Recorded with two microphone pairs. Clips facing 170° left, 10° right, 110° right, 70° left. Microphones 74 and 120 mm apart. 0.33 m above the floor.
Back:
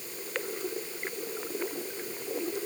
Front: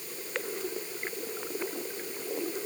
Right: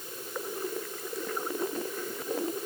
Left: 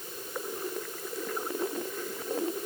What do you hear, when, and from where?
Only background noise.